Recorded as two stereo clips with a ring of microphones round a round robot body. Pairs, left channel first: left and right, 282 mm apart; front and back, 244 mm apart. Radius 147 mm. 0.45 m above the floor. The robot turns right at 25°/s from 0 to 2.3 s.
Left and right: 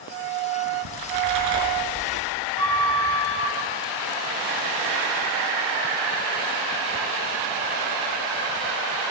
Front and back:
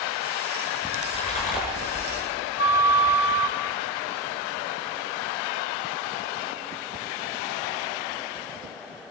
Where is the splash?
80° right, 6 m; by 2.2 s 45° right, 6 m.